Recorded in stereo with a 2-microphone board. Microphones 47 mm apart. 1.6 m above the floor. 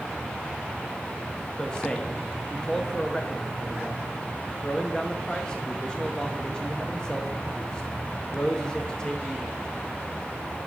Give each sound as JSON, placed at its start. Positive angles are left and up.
{"t": 1.6, "sound": "a man speaking", "side_deg": 15, "distance_m": 0.8}